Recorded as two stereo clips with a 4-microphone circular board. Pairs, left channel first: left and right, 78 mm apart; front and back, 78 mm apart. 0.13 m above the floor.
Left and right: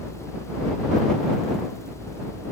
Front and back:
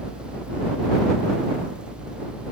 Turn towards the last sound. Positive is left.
No sound to turn to.